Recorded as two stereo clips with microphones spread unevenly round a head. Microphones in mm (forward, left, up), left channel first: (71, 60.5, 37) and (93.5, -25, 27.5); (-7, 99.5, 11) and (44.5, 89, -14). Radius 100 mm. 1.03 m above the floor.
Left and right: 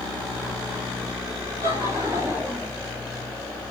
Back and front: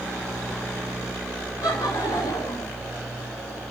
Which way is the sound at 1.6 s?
140° right.